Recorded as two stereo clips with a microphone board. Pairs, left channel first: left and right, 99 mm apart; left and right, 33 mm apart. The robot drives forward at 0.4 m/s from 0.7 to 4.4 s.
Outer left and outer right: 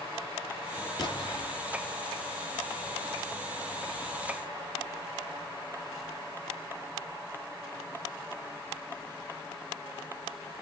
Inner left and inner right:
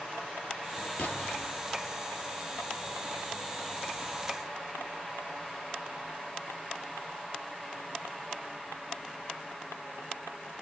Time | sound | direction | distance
1.0 | an explosion | 40° left (ahead or behind) | 3 m